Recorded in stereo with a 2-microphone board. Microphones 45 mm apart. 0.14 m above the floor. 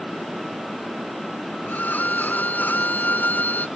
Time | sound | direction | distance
1.7 | a violin | 40° left (ahead or behind) | ?